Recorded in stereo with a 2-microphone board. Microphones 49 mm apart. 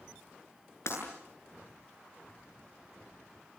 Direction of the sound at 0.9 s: 70° left (ahead or behind).